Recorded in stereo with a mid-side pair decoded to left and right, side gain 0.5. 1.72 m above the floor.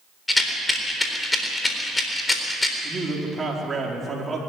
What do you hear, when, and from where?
0.3 s a rattle: 15° left, 4 m
2.8 s a man speaking: 25° right, 5 m